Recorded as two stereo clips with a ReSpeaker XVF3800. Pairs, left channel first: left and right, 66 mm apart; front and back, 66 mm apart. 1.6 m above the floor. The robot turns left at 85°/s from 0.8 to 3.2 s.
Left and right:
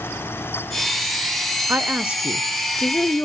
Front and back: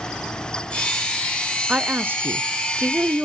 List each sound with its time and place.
1.7 s a woman speaking: 110° right, 0.5 m; by 3.2 s 120° left, 0.5 m